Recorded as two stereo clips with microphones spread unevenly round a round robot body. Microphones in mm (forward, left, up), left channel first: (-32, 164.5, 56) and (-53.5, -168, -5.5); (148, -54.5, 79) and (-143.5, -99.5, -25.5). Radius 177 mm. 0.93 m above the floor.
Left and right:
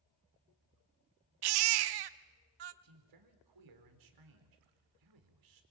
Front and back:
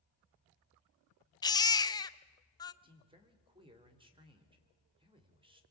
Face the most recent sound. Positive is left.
turn(degrees=-105)